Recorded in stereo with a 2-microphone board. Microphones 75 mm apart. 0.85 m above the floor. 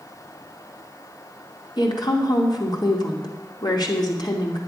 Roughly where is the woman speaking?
Left.